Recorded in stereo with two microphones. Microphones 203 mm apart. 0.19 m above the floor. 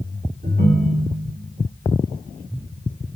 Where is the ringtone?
45° right (ahead or behind), 1.0 m.